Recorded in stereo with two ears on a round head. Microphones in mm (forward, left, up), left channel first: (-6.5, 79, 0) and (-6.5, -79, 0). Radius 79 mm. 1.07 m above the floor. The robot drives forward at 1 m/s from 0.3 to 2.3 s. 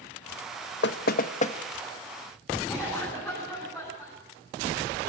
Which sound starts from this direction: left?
Knocking, at 0.8 s.